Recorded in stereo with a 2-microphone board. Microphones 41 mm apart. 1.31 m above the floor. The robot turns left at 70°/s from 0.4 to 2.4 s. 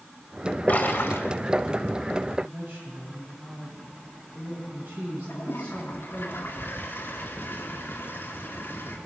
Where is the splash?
135° left, 1.7 m; by 1.3 s 95° left, 1.7 m.